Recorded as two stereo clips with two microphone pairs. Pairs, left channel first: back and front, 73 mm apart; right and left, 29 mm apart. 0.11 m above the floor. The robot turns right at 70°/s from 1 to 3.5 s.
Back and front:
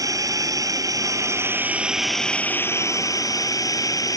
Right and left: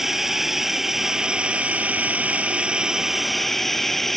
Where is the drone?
10° left; by 4.2 s 175° right.